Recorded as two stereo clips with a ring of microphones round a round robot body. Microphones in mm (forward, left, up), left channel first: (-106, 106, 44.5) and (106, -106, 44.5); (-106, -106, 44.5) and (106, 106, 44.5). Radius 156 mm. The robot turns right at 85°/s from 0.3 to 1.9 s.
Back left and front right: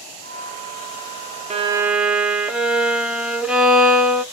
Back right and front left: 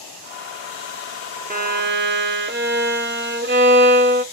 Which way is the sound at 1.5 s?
5° left.